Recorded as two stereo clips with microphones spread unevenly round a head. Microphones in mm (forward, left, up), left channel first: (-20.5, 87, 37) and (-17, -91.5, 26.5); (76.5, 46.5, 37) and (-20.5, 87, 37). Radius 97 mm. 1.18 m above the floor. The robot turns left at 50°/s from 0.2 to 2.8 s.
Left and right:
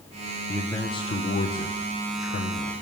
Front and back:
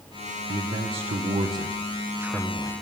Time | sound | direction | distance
0.5 | a man speaking | 175° left | 1.0 m